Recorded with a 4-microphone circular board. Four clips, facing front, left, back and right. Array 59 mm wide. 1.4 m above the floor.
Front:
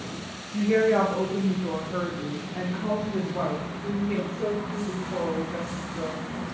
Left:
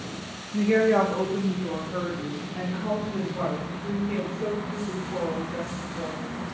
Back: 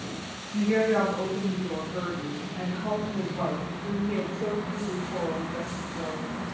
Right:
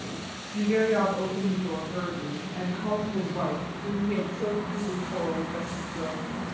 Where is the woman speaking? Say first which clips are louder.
Left 3 dB, front 2 dB; 90° left, 0.6 m; by 6.2 s 15° right, 2.5 m.